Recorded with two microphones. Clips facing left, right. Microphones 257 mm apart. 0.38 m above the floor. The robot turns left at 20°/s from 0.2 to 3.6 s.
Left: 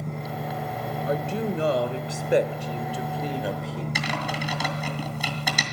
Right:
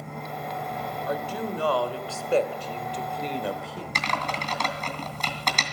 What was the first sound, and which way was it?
An engine running, 140° left.